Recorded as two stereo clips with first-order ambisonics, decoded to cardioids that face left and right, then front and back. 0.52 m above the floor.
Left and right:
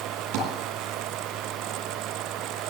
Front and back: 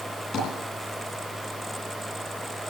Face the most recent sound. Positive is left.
turn(degrees=-65)